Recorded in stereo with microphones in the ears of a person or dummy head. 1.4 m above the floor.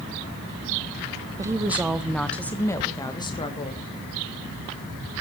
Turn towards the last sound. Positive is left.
turn(degrees=25)  # may be behind; listen again after turning